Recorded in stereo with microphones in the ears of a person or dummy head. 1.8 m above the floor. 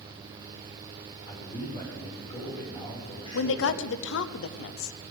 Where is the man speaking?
30° left (ahead or behind), 5.5 m.